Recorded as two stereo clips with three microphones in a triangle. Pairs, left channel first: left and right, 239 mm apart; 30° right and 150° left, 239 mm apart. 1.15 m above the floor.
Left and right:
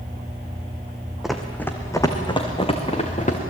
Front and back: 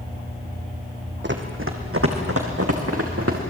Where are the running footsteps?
Straight behind, 2.5 m; by 3.4 s 150° left, 4.5 m.